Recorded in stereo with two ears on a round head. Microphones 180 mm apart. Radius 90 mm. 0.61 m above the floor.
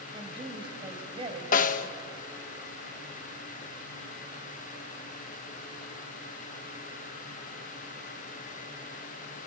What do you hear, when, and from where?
0.1 s a woman speaking: 30° right (ahead or behind), 3 m
1.5 s a snare drum: 40° left (ahead or behind), 0.7 m